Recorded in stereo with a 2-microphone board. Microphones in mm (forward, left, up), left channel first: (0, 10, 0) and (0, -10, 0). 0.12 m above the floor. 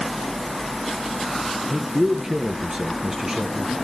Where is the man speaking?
30° right (ahead or behind), 1.7 m.